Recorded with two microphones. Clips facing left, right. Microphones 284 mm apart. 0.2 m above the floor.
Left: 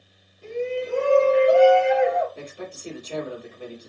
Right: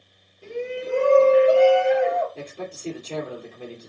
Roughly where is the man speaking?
Right.